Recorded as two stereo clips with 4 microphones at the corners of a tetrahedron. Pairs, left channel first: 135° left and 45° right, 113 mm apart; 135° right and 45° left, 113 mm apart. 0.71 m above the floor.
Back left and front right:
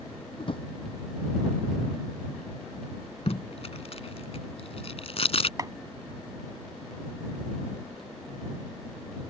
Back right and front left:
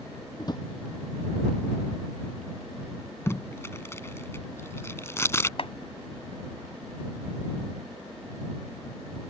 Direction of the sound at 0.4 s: 175° left.